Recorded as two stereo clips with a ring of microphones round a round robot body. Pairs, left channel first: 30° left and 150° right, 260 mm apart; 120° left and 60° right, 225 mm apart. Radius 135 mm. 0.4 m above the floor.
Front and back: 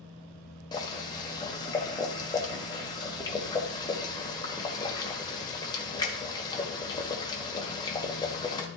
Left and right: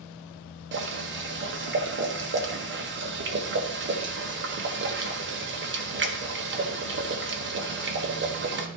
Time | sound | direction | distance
0.7 | boiling | 40° right | 1.5 m